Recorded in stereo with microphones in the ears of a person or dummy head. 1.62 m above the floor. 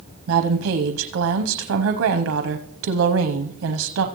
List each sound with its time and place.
0.3 s a woman speaking: 75° right (ahead or behind), 0.8 m